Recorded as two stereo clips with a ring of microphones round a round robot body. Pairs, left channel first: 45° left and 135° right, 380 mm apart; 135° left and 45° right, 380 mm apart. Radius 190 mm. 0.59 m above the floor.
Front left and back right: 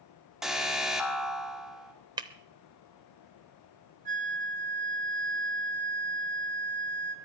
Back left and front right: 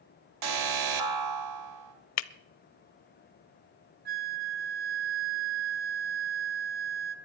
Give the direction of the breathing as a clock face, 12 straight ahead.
No breathing in this recording.